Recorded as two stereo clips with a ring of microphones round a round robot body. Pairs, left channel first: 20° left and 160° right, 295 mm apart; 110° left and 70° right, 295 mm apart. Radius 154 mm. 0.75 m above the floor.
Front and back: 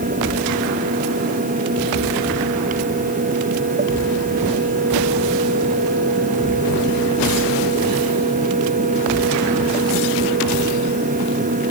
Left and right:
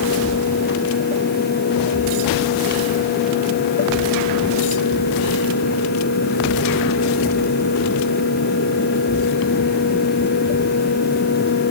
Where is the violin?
I don't hear a violin.